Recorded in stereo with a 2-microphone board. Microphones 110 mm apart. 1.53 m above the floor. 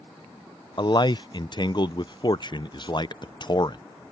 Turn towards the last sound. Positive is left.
turn(degrees=45)  # may be behind; listen again after turning